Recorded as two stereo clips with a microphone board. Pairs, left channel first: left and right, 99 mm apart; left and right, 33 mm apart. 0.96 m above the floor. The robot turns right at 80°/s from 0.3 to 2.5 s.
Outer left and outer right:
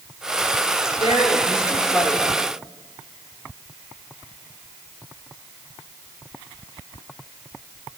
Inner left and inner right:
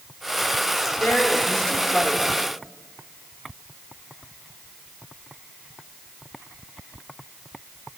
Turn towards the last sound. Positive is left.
turn(degrees=-150)